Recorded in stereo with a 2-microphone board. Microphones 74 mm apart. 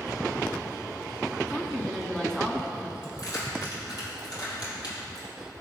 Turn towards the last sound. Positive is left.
turn(degrees=65)  # may be behind; listen again after turning